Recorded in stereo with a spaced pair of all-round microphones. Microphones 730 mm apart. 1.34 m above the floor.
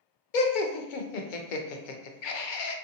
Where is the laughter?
85° left, 0.6 m.